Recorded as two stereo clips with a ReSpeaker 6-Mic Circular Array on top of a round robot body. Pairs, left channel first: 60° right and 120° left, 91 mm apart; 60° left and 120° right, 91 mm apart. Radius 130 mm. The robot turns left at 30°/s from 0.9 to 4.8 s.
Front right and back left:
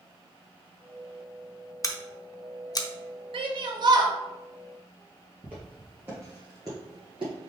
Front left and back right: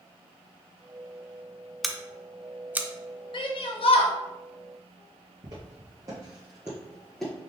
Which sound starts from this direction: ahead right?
Scissors, at 1.8 s.